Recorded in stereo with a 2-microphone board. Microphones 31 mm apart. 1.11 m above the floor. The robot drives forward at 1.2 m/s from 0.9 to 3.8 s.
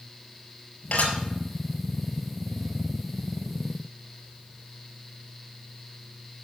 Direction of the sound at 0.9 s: 60° left (ahead or behind).